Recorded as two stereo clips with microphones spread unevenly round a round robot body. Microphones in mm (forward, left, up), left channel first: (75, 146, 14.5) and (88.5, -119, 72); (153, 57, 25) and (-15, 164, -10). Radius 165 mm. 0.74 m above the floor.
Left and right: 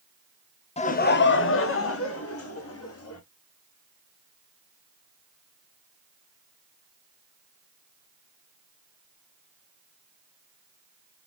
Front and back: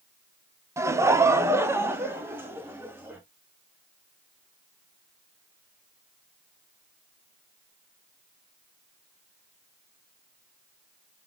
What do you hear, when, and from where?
0.8 s laughter: 100° left, 0.5 m; by 3.2 s 70° left, 1.7 m